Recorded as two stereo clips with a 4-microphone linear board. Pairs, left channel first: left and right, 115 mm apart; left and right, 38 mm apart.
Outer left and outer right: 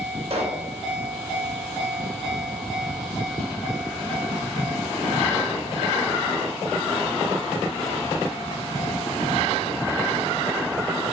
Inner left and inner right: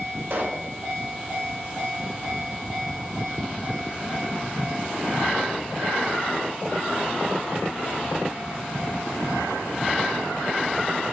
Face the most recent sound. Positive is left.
turn(degrees=-65)  # may be behind; listen again after turning